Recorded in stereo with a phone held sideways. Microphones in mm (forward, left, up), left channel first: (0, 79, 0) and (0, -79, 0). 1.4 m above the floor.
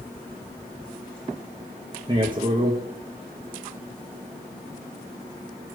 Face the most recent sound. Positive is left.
turn(degrees=-30)  # may be behind; listen again after turning